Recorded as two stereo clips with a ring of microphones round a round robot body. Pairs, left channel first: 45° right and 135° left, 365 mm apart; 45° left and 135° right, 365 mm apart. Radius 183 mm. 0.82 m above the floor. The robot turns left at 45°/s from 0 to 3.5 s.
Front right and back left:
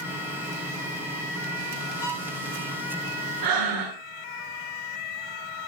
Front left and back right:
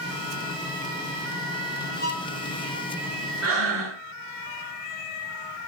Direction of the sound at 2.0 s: 20° right.